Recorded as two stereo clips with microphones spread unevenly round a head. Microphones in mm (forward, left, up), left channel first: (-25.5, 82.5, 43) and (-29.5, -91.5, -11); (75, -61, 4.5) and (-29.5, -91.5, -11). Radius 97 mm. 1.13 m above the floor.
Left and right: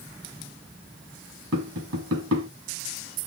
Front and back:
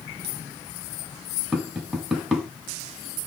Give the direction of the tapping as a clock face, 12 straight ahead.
3 o'clock.